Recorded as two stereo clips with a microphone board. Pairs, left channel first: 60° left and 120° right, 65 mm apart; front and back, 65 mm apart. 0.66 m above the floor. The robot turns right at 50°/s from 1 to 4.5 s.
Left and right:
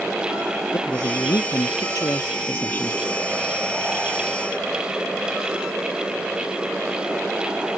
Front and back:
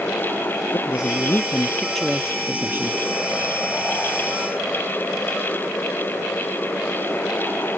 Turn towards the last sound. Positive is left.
turn(degrees=-150)